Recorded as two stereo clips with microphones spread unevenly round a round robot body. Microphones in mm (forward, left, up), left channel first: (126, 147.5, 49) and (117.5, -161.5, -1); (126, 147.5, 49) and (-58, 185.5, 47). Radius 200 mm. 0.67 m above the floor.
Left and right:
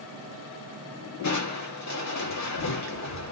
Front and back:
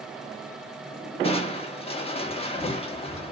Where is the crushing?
50° left, 1.0 m.